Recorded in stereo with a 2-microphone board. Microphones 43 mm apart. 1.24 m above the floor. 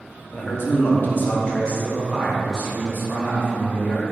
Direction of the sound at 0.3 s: 60° left (ahead or behind).